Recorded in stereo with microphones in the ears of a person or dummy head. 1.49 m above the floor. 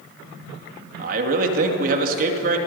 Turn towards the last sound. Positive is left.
turn(degrees=-60)  # may be behind; listen again after turning